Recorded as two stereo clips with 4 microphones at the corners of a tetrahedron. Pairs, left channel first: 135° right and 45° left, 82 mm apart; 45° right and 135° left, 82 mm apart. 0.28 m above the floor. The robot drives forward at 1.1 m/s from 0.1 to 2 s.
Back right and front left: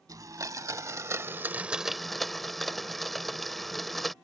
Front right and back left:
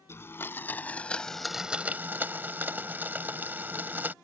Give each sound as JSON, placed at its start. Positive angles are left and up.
{"t": 0.1, "sound": "a blender", "azimuth_deg": 10}